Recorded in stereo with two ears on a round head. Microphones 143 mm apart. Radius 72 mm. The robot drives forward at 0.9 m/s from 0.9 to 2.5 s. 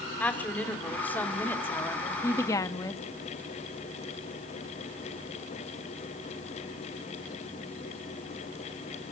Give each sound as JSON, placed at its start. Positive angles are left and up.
{"t": 0.2, "sound": "a woman speaking", "side_deg": 10, "distance_m": 3.0}